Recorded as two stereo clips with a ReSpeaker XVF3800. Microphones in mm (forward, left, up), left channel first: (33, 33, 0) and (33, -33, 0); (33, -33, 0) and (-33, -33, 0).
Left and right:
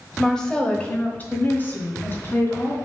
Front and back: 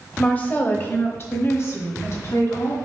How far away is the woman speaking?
About 1.1 m.